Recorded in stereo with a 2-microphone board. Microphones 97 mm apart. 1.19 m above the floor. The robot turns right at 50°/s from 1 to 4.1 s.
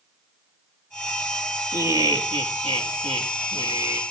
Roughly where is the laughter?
Behind right.